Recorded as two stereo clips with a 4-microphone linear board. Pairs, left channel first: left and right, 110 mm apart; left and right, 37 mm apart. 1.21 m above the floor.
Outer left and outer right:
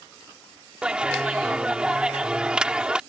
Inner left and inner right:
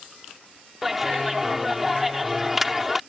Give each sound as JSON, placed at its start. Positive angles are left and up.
{"t": 0.8, "sound": "a clap", "side_deg": -10}